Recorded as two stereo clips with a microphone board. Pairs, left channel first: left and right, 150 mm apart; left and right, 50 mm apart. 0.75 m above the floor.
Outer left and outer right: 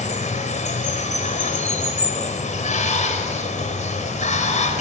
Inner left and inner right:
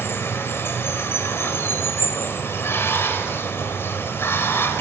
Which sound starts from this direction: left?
Running water, at 0.0 s.